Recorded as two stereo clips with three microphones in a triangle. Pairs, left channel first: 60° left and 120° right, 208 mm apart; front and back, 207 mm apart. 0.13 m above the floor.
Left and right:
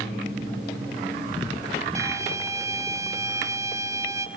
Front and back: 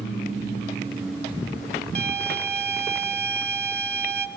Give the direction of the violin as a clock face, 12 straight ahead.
6 o'clock.